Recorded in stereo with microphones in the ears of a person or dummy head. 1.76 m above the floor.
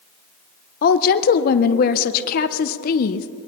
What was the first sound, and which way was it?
A woman speaking, 55° left (ahead or behind).